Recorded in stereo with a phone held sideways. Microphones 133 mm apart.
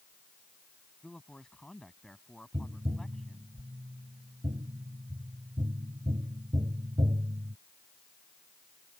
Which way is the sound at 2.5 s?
45° right (ahead or behind).